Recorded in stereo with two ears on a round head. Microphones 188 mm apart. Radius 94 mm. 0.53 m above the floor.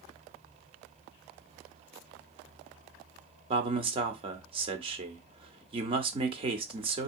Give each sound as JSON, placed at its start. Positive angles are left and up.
{"t": 3.5, "sound": "a man speaking", "side_deg": -30, "distance_m": 0.9}